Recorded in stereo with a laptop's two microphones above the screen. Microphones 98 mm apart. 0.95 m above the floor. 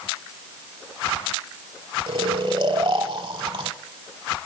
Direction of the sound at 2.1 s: 55° right (ahead or behind).